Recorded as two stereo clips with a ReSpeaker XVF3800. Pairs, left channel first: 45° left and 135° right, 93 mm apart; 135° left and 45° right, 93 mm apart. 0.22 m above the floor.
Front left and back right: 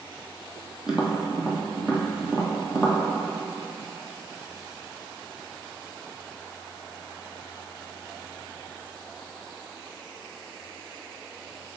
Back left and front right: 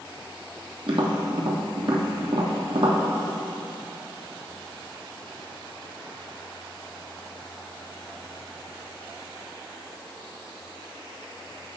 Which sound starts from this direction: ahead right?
Tapping, at 0.9 s.